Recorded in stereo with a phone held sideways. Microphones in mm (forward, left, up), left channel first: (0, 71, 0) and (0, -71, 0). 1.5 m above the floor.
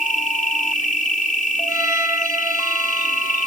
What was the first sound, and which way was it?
An insect, 75° left (ahead or behind).